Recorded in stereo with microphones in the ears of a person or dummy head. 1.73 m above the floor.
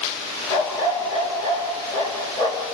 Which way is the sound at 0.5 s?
20° left (ahead or behind).